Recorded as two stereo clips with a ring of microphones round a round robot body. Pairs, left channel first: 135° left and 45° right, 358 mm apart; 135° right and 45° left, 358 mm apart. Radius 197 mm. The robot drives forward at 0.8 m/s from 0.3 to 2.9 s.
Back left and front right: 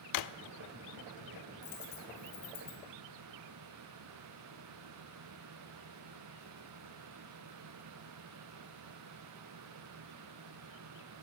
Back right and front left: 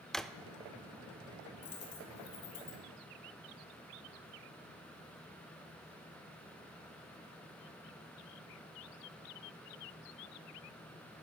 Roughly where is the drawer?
Behind left.